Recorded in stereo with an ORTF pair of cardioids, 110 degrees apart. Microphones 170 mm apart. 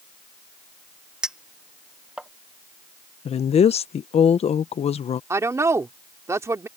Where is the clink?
5° right.